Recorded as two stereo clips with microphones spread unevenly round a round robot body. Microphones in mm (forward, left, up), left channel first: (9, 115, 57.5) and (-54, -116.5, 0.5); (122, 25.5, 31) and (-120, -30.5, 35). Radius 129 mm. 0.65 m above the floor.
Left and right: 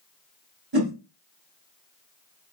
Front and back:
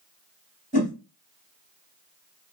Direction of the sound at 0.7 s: 50° right.